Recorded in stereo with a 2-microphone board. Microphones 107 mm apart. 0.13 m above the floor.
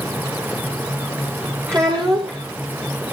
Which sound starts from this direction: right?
A child speaking, at 1.7 s.